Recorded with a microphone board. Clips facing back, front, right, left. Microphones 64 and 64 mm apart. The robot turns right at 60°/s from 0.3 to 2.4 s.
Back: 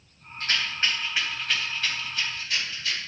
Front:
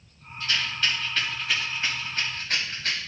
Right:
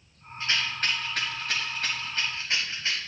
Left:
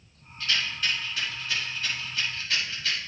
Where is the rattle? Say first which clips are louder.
Even, right 1 dB; 150° right, 2.5 m; by 3.0 s 30° right, 2.5 m.